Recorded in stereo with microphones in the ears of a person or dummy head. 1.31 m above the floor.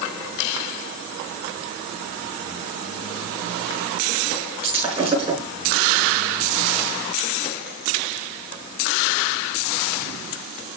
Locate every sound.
4.6 s breaking glass: 30° right (ahead or behind), 6.5 m